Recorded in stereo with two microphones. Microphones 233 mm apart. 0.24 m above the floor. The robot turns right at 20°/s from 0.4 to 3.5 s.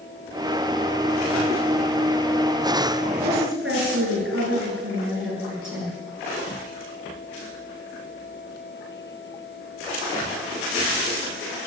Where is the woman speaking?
65° right (ahead or behind), 4 m; by 6.0 s 60° right (ahead or behind), 4 m.